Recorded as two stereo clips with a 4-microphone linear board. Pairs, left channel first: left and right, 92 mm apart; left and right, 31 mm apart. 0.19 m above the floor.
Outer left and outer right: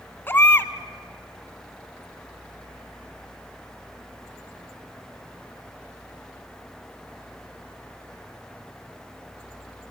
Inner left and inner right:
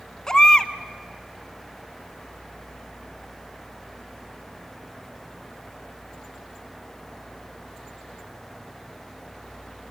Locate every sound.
0.3 s a baby crying: 20° left (ahead or behind), 1.0 m